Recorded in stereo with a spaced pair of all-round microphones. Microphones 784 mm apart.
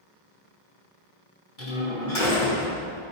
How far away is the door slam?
About 3 m.